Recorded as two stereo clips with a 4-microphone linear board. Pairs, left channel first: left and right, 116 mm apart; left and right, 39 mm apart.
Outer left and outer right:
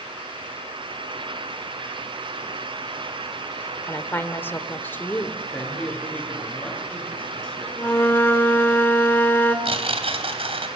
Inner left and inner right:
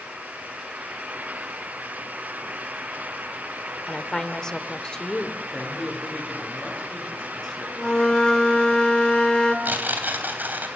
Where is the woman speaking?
20° left (ahead or behind), 1.7 m.